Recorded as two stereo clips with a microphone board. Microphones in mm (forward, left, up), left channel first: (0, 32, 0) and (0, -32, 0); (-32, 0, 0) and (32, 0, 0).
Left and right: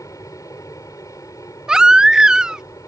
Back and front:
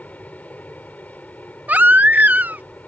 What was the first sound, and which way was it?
An aircraft, 115° left.